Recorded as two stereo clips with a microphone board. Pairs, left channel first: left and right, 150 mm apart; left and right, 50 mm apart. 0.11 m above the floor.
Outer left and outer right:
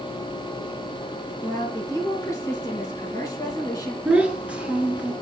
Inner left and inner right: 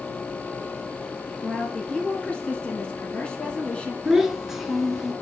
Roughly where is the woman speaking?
Left.